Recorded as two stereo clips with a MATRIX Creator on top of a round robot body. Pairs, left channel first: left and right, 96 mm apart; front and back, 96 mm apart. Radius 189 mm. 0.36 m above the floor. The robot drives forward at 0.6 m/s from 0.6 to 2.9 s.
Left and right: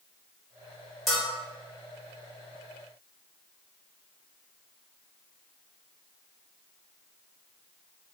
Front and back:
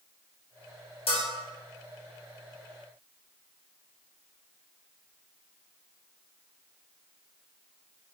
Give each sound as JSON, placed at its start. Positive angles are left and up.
{"t": 1.1, "sound": "a bell", "azimuth_deg": 0, "distance_m": 1.4}